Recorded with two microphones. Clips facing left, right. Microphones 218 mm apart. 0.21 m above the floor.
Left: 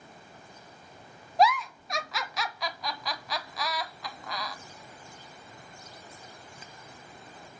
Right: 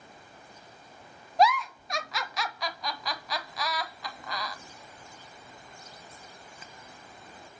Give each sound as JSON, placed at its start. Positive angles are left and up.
{"t": 1.4, "sound": "a giggle", "side_deg": 0, "distance_m": 1.2}